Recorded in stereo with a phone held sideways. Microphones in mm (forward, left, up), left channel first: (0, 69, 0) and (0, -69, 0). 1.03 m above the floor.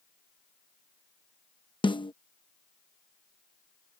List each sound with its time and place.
1.8 s a snare drum: 35° left (ahead or behind)